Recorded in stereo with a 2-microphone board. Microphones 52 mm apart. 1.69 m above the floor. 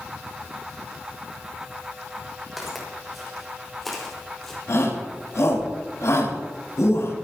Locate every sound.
2.6 s footsteps: 5° right (ahead or behind), 7 m; by 4.6 s 10° left (ahead or behind), 4.5 m
4.7 s a shout: 70° left (ahead or behind), 4.5 m